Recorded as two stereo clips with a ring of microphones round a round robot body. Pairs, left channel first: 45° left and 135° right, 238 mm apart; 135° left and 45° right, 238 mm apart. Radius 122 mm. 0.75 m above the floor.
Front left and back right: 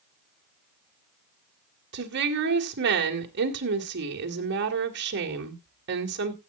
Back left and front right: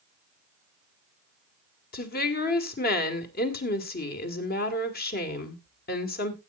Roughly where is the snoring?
I don't hear snoring.